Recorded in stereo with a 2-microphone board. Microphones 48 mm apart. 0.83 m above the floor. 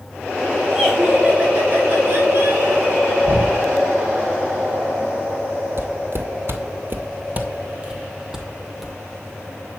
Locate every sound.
0.7 s laughter: 10° right (ahead or behind), 1.8 m; by 3.1 s 60° right (ahead or behind), 3.5 m
3.2 s knocking: 50° right (ahead or behind), 3 m
5.8 s footsteps: 55° right (ahead or behind), 1.5 m; by 8.9 s 5° right (ahead or behind), 1.9 m